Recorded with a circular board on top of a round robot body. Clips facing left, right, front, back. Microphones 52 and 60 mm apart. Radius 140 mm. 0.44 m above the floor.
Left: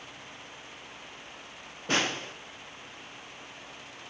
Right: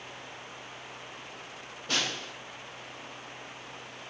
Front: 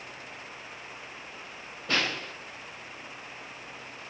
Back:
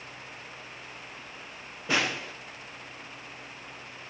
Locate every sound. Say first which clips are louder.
1.9 s a snare drum: left 4 dB, back 1 dB; 110° left, 0.9 m